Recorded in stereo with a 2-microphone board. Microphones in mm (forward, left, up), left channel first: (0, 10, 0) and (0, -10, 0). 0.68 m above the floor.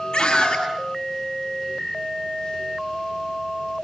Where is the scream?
65° left (ahead or behind), 7 m.